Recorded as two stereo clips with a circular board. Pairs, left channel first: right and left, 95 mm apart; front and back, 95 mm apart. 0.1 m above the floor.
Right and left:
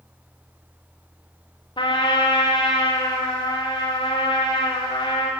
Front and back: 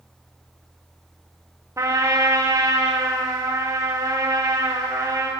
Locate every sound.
1.8 s a trumpet: 120° right, 5.5 m